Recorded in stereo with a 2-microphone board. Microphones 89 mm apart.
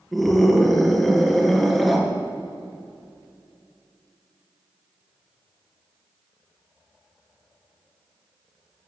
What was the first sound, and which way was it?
A scream, centre (ahead or behind).